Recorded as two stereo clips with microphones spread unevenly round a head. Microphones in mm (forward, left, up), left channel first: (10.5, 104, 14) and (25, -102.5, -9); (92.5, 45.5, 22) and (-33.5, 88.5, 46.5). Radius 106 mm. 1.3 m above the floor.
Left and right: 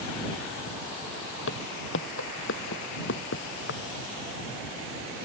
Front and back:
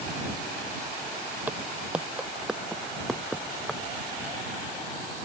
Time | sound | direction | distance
1.5 | footsteps | 95° left | ?